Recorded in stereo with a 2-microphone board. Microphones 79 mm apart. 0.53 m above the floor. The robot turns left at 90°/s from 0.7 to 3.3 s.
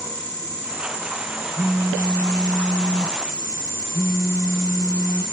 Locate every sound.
1.6 s a phone buzzing: 105° right, 0.5 m; by 5.2 s 100° left, 0.5 m